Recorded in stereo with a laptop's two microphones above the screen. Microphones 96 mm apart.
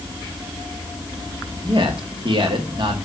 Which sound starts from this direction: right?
A man speaking, at 1.6 s.